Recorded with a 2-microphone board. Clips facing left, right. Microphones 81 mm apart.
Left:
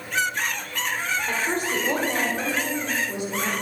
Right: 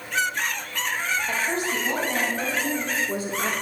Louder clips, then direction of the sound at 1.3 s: Left 1 dB; 50° left (ahead or behind).